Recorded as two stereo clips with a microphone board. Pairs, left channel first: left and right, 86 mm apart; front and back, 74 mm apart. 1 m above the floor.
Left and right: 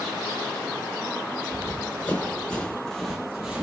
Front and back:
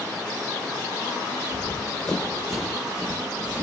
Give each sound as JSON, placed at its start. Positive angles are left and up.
{"t": 1.5, "sound": "running footsteps", "azimuth_deg": 50, "distance_m": 1.3}